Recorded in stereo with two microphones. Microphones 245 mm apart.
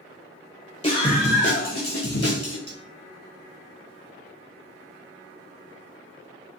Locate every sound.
0.8 s a scream: 25° left (ahead or behind), 1.5 m; by 2.6 s 70° left (ahead or behind), 2.0 m
2.7 s cutlery clinking: 45° right (ahead or behind), 0.7 m